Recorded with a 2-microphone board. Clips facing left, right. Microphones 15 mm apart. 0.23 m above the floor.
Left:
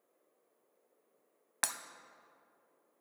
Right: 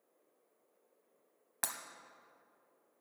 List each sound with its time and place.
1.6 s breaking glass: 35° left (ahead or behind), 0.6 m